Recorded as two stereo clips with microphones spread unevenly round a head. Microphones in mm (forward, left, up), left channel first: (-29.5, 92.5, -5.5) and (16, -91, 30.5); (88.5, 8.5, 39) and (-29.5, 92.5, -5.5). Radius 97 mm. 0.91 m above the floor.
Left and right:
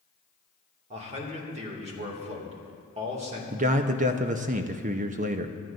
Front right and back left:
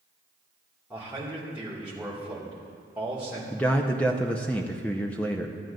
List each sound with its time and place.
0.9 s a man speaking: 135° right, 2 m
3.5 s a man speaking: 130° right, 0.7 m